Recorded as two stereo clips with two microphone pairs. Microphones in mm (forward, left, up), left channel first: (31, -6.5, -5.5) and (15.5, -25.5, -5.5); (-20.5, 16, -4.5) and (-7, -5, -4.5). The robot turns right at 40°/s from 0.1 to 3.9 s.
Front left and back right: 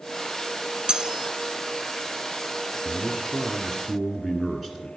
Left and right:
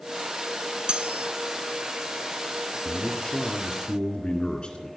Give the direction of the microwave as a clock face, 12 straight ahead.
I don't hear a microwave.